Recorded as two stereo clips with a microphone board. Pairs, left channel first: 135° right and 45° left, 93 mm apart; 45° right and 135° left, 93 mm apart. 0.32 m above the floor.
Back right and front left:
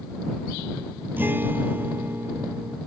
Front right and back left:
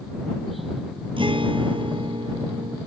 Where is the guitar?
115° left.